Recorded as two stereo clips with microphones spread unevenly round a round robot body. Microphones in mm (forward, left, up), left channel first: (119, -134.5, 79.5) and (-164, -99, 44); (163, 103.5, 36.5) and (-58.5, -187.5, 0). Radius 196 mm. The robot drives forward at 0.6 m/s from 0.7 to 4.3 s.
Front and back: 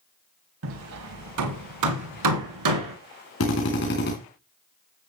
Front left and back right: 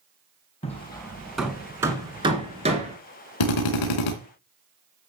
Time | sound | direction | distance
0.6 | hammering | 130° left | 1.0 m
3.4 | a drill | 50° left | 2.5 m